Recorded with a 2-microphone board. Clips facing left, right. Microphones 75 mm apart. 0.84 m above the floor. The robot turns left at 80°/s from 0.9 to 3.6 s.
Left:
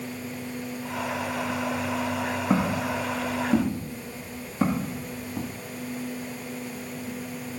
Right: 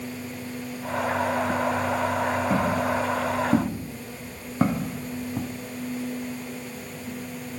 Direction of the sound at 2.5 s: 45° left (ahead or behind).